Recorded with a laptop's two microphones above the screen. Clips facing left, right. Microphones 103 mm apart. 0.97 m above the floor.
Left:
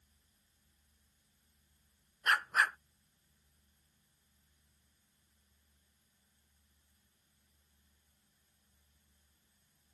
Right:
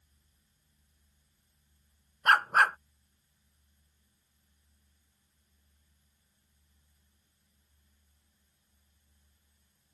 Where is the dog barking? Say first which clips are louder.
Right 8 dB; 60° right (ahead or behind).